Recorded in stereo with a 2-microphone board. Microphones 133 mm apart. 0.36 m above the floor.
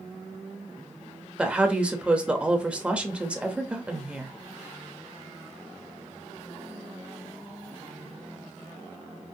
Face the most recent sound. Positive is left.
turn(degrees=-10)  # may be behind; listen again after turning